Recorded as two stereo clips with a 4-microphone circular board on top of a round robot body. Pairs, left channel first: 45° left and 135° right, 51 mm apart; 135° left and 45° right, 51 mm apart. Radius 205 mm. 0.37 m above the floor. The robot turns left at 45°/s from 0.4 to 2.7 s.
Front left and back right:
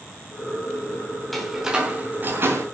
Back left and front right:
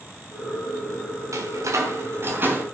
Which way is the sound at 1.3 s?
45° right.